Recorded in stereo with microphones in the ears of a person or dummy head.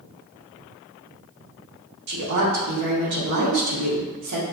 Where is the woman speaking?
70° right (ahead or behind), 1.2 m.